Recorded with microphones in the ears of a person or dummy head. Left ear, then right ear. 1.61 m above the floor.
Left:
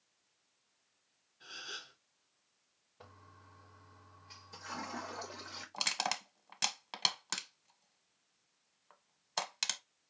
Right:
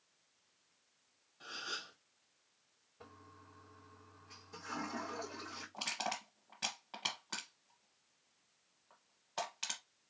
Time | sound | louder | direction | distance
1.4 | a gasp | right 2 dB | 30° right (ahead or behind) | 1.7 m
3.0 | a toilet flushing | even | 25° left (ahead or behind) | 1.2 m
5.7 | crushing | left 5 dB | 80° left | 1.1 m